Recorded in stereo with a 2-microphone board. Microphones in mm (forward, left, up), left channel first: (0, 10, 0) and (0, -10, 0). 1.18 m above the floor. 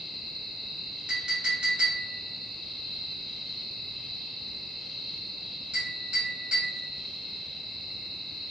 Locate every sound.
1.1 s a clink: 60° right (ahead or behind), 1.1 m